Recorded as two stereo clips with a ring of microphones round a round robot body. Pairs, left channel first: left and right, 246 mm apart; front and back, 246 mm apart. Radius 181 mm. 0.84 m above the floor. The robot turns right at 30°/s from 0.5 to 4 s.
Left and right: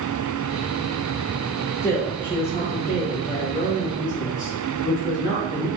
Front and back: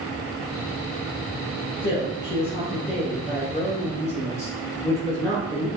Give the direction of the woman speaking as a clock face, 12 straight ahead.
12 o'clock.